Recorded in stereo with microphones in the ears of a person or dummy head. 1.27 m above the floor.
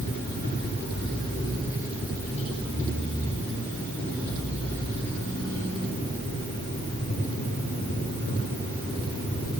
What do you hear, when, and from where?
Only background noise.